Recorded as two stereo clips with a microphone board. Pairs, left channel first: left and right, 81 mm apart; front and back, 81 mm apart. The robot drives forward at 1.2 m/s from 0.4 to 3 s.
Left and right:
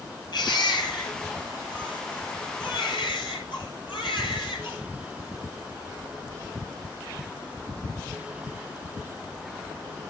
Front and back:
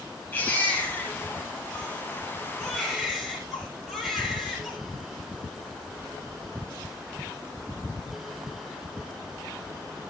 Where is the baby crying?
65° left, 7 m; by 4.8 s 90° left, 6.5 m.